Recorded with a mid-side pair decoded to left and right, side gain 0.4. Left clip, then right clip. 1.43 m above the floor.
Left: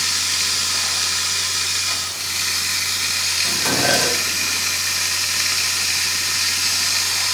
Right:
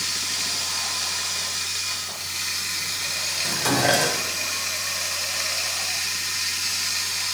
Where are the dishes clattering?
Straight ahead, 5 m.